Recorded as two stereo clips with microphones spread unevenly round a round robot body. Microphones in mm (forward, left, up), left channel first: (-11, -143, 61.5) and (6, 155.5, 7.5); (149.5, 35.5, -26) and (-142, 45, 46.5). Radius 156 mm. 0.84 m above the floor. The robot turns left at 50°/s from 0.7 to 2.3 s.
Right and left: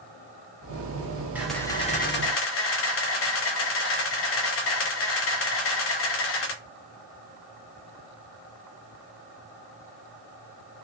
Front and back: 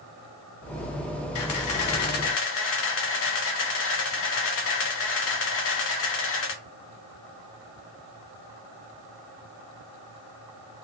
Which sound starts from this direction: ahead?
A camera shutter, at 1.4 s.